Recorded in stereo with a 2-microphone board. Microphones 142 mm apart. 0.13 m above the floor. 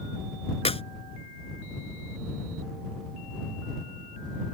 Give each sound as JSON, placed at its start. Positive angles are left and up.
{"t": 0.7, "sound": "a clap", "side_deg": 45}